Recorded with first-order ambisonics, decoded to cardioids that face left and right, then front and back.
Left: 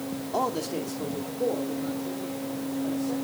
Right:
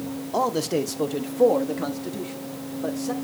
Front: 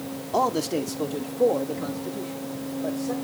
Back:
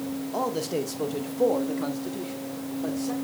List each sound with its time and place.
0.3 s a man speaking: 20° right, 0.9 m; by 3.1 s 115° right, 3 m